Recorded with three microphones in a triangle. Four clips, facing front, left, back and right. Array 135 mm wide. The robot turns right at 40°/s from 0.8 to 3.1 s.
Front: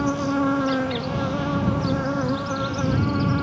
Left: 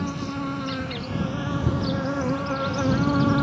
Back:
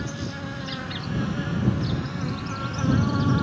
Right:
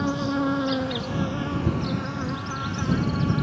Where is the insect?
20° right; by 3.4 s 70° left.